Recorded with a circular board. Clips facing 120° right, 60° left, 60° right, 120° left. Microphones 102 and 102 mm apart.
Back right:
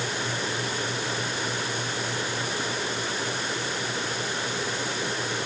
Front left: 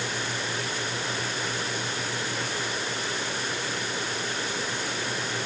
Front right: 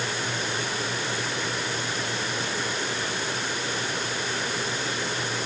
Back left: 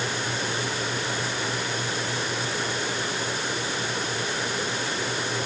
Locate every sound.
Only background noise.